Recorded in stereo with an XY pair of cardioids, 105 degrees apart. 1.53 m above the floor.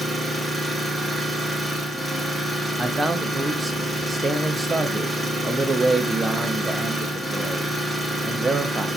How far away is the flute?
I don't hear a flute.